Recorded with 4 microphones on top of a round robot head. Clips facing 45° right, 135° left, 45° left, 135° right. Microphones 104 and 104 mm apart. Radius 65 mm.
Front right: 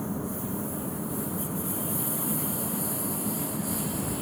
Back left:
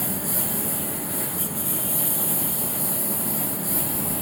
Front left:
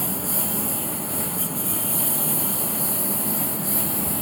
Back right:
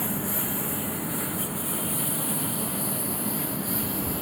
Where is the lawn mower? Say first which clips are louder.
Back left 1 dB, front left 1 dB; 110° left; by 4.2 s 95° left.